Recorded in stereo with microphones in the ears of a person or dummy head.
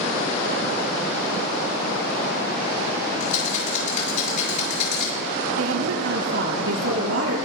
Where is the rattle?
40° left (ahead or behind), 6 m.